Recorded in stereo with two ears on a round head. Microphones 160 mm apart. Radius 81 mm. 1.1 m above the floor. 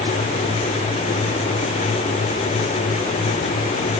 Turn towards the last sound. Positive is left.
No sound to turn to.